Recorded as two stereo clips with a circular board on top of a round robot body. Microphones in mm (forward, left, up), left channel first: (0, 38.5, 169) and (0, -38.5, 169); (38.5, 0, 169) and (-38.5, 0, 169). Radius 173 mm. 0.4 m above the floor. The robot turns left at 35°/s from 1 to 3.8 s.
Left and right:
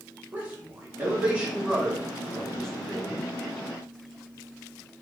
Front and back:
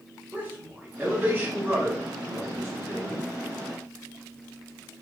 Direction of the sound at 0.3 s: 135° right.